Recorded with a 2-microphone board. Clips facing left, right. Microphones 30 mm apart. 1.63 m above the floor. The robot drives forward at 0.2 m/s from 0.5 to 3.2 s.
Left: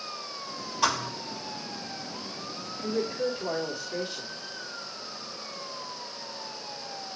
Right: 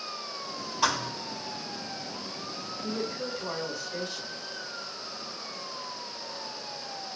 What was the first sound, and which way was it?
A thud, centre (ahead or behind).